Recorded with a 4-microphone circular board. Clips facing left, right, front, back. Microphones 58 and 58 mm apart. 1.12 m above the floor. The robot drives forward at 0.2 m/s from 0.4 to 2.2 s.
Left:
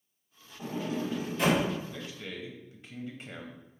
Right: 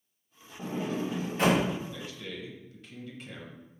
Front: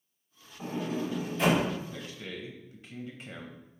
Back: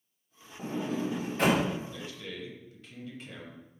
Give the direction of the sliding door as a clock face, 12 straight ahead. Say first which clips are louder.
Right 1 dB, back 1 dB; 5 o'clock.